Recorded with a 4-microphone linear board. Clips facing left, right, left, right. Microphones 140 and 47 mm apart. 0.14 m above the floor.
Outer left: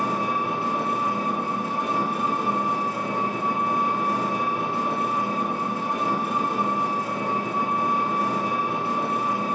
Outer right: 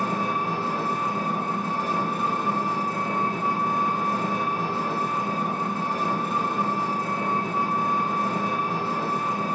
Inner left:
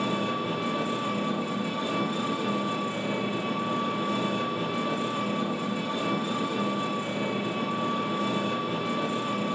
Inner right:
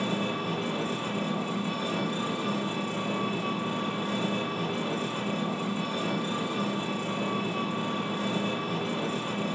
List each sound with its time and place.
0.0 s an engine running: 15° left (ahead or behind), 2.0 m